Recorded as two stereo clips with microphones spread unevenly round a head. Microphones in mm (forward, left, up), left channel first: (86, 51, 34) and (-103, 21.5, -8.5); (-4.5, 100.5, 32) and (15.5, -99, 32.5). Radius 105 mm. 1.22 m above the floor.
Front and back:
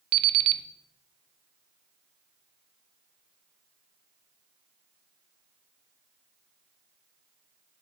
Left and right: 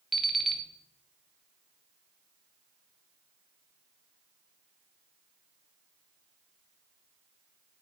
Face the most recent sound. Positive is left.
turn(degrees=-175)